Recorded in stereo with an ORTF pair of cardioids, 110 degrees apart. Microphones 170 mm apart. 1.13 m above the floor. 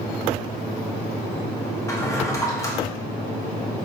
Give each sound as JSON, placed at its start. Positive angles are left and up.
{"t": 1.9, "sound": "a drawer", "azimuth_deg": 20, "distance_m": 1.0}